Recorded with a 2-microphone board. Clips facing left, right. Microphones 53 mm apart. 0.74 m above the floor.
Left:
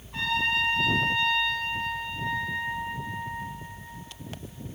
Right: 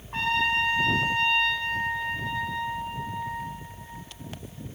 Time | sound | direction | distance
0.1 | a trumpet | 50° right (ahead or behind) | 4 m